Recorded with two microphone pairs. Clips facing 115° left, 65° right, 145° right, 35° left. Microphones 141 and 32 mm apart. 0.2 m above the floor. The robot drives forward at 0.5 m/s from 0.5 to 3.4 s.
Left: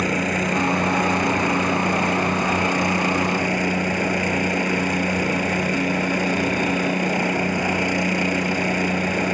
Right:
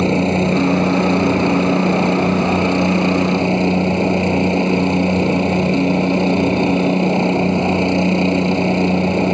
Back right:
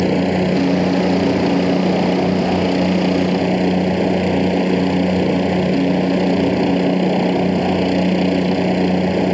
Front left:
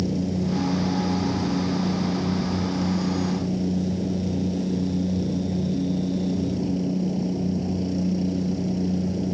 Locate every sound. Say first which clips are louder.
0.0 s a helicopter: right 7 dB, back right 10 dB; 125° right; by 9.3 s 130° right